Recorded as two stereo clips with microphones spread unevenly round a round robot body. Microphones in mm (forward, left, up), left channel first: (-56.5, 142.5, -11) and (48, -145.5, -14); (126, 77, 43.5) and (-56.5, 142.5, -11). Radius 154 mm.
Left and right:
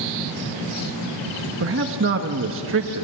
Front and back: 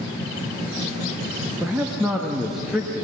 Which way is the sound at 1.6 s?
115° right.